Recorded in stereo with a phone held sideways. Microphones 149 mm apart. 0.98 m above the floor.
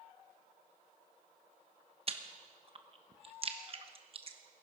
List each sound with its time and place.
2.1 s chewing: 40° right (ahead or behind), 1.0 m